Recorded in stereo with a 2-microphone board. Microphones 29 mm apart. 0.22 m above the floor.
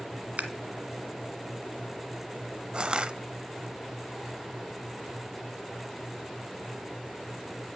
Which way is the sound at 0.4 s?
55° right (ahead or behind).